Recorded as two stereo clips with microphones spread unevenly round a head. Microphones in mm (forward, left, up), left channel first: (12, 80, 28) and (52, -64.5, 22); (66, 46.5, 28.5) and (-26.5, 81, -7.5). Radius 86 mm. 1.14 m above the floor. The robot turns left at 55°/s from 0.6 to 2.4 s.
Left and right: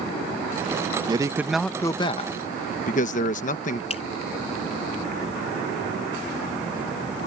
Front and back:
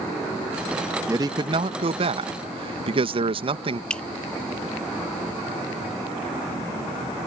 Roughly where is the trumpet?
No trumpet in this recording.